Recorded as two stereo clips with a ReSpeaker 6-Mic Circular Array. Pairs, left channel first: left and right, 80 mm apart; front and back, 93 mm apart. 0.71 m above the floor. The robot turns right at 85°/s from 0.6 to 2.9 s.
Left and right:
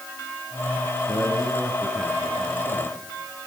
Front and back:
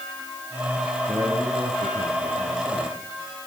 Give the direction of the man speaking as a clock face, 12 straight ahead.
8 o'clock.